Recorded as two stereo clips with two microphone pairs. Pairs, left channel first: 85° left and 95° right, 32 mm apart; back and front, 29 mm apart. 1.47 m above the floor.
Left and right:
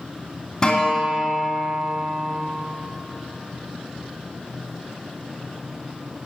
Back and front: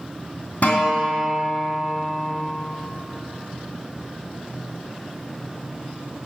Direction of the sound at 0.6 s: 160° left.